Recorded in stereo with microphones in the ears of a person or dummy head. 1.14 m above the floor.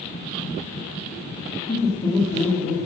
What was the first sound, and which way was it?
Laughter, 35° left (ahead or behind).